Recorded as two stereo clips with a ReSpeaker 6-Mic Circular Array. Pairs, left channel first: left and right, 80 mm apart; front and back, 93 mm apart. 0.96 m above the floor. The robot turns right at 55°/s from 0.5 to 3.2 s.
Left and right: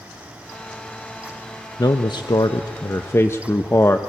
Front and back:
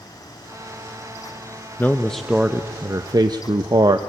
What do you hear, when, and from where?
1.8 s a man speaking: 65° left, 0.7 m; by 4.0 s 145° left, 0.7 m